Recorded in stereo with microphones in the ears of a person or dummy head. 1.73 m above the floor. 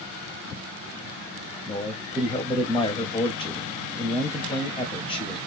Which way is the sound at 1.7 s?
20° left (ahead or behind).